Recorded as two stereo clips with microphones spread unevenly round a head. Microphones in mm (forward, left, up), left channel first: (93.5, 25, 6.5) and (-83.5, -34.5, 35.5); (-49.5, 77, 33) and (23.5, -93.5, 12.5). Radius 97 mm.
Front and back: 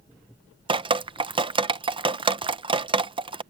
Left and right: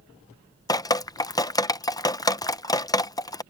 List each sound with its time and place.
0.7 s dripping: 165° left